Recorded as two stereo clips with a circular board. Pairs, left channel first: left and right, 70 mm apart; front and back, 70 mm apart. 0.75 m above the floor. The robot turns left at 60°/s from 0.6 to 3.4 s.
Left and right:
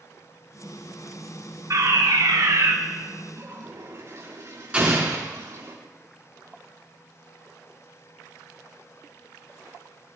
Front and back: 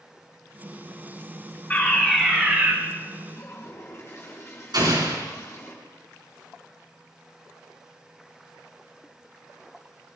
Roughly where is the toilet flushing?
Ahead right.